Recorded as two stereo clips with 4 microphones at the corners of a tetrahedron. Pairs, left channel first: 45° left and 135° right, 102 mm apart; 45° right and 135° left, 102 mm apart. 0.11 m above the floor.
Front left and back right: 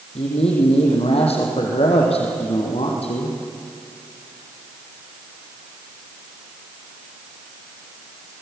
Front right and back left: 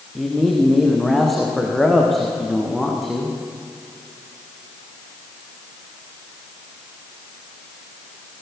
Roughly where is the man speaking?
Ahead left.